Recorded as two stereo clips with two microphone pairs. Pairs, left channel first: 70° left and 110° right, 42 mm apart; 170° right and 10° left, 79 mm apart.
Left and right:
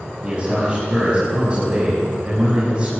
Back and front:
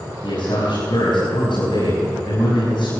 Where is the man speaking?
175° right, 6 m.